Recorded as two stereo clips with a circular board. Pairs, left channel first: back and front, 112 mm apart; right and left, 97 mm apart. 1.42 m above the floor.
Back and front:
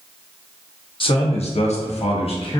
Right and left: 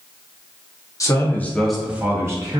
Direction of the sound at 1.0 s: 145° right.